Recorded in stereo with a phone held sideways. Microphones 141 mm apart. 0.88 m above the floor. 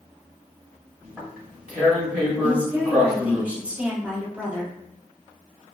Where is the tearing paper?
5° right (ahead or behind), 1.1 m.